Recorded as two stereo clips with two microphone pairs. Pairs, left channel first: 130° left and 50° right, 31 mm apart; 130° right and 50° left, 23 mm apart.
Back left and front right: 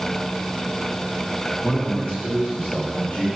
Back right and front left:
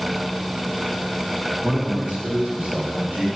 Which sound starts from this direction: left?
A man speaking, at 1.6 s.